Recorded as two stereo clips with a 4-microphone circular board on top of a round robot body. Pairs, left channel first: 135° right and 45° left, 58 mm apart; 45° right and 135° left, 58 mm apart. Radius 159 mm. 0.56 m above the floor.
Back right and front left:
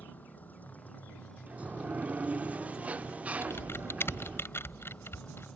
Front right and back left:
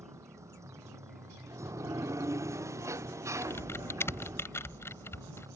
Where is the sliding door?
110° left.